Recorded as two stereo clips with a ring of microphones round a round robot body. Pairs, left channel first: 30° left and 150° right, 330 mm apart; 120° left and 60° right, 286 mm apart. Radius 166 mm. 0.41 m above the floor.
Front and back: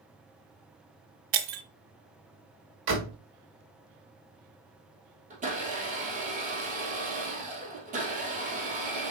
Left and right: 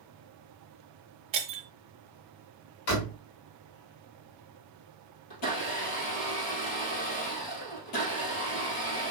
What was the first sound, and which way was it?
Breaking glass, 130° right.